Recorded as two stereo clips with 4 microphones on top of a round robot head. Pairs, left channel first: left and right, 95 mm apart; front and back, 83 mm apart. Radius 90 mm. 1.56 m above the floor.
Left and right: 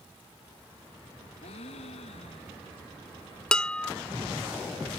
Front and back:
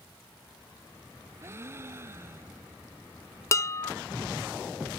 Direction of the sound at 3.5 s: 15° left.